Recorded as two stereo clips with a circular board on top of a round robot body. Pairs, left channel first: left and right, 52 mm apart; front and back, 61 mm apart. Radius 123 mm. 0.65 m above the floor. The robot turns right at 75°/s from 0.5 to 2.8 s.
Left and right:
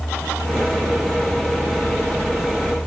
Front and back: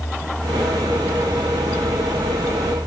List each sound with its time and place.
Only background noise.